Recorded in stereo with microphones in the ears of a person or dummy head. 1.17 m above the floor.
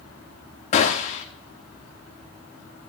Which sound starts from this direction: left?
A gunshot, at 0.7 s.